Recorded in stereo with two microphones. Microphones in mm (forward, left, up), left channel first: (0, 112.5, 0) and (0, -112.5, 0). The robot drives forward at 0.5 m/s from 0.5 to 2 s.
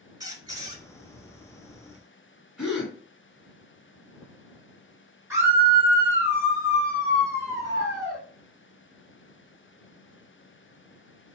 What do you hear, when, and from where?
0.2 s a squeak: 20° right (ahead or behind), 0.9 m
2.6 s a gasp: 5° right (ahead or behind), 1.6 m
5.3 s a scream: 10° right (ahead or behind), 2 m